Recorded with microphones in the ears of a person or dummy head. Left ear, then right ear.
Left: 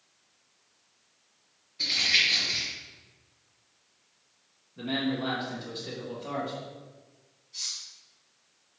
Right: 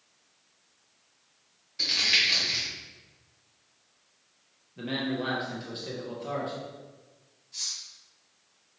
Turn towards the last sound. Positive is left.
turn(degrees=-65)  # may be behind; listen again after turning